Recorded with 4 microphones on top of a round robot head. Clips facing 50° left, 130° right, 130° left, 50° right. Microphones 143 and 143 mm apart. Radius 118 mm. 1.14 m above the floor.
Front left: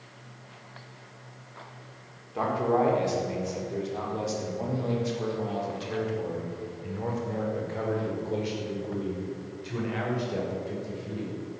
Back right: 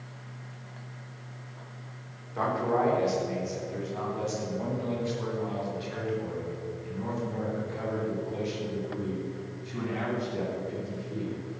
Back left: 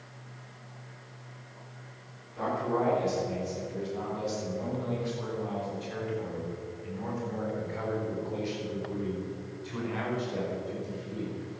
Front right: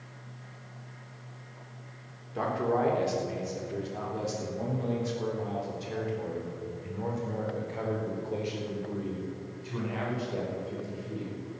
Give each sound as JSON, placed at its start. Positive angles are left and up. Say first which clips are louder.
{"t": 2.4, "sound": "a man speaking", "louder": "front left 2 dB, front right 1 dB", "azimuth_deg": -25, "distance_m": 4.0}